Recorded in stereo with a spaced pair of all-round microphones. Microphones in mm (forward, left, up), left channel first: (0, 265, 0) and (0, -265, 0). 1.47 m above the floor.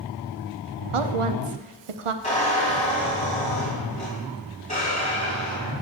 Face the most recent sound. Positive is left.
turn(degrees=15)  # may be behind; listen again after turning